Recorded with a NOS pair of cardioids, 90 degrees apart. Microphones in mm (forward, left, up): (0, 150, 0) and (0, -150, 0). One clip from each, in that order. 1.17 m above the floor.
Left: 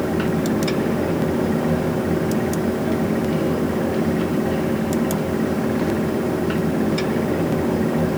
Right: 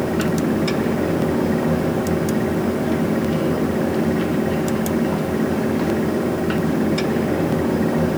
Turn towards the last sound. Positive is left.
turn(degrees=-5)